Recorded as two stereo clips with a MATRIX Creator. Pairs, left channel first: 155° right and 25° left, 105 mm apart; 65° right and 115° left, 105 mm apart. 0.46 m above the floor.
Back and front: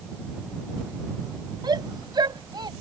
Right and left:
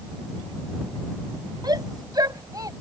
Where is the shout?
65° left; by 2.7 s 60° left.